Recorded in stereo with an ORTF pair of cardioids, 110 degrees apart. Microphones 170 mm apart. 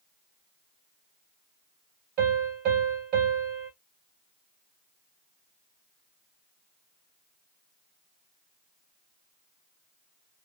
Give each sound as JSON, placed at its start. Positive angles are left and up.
{"t": 2.2, "sound": "a piano", "azimuth_deg": -70, "distance_m": 2.0}